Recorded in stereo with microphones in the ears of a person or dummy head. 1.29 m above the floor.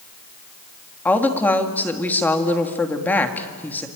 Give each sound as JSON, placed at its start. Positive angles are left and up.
{"t": 1.1, "sound": "a woman speaking", "side_deg": 5, "distance_m": 2.5}